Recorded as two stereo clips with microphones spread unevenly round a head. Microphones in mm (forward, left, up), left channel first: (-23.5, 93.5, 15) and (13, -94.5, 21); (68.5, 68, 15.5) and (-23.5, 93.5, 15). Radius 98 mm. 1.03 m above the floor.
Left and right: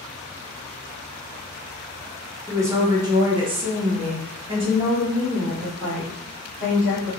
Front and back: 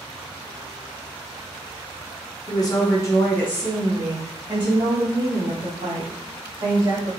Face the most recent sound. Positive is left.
turn(degrees=-150)